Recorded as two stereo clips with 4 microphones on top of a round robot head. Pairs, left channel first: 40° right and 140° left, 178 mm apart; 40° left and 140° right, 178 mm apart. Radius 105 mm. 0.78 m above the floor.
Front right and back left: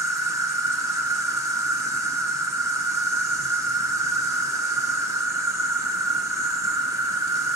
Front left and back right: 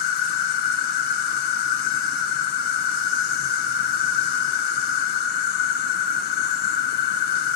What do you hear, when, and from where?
0.0 s an insect: 65° left, 1.1 m